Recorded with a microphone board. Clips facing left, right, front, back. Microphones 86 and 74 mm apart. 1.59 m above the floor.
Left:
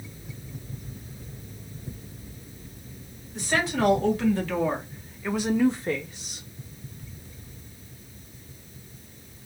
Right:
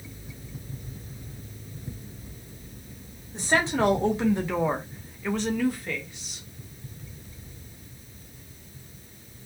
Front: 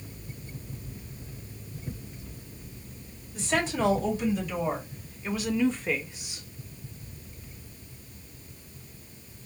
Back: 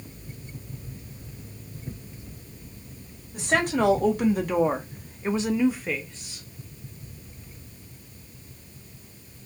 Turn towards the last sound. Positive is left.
turn(degrees=65)